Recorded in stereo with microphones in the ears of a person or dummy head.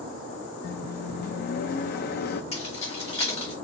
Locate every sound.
0.6 s a microwave: 50° left (ahead or behind), 0.6 m
2.5 s keys jangling: 30° left (ahead or behind), 1.9 m